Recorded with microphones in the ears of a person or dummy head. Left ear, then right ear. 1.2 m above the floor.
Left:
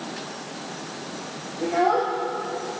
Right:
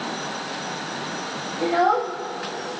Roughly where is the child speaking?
Right.